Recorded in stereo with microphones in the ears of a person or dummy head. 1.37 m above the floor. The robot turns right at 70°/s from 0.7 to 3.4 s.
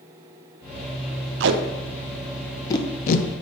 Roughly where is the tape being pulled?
Right.